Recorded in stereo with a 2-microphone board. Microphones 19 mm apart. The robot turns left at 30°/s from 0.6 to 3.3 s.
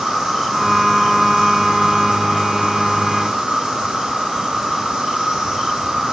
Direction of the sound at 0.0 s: 40° right.